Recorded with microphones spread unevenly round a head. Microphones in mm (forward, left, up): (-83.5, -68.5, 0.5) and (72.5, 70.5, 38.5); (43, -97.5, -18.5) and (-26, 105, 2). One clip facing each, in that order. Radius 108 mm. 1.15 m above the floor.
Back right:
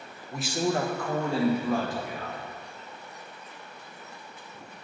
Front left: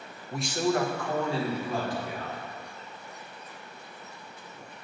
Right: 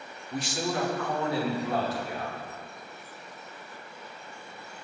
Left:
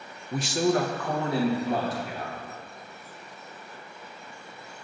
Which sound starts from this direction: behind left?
A man speaking, at 0.3 s.